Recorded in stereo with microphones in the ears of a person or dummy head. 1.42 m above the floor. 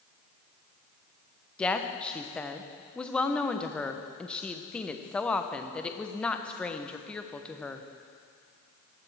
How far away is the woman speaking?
About 0.6 m.